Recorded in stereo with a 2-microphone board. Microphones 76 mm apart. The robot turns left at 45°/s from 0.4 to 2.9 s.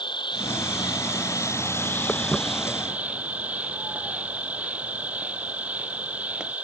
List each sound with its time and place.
0.0 s an insect: 95° left; by 6.6 s 20° right
2.1 s footsteps: 15° left (ahead or behind); by 6.5 s 10° right (ahead or behind)